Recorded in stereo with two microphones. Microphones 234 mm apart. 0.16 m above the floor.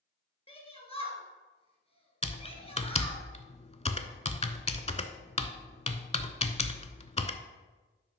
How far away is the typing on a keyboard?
About 0.5 m.